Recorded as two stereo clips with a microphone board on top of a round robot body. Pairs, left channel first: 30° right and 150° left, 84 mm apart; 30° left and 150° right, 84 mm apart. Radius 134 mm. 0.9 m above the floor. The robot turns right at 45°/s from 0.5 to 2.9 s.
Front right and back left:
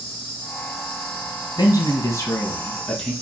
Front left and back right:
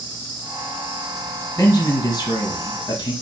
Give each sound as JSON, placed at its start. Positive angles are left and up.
{"t": 0.0, "sound": "an insect", "azimuth_deg": -95, "distance_m": 1.6}
{"t": 1.6, "sound": "a man speaking", "azimuth_deg": -25, "distance_m": 1.1}